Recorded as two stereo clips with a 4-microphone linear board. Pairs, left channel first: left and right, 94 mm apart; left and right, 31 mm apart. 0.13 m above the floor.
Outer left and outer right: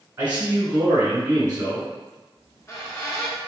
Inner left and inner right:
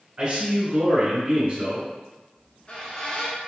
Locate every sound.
0.2 s a man speaking: 30° right (ahead or behind), 1.3 m
2.4 s a squeak: 35° left (ahead or behind), 0.9 m